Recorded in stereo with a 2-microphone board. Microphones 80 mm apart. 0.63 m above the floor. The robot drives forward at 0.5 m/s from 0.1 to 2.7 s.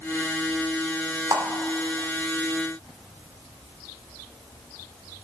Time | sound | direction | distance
1.3 | a clap | 50° right (ahead or behind) | 1.6 m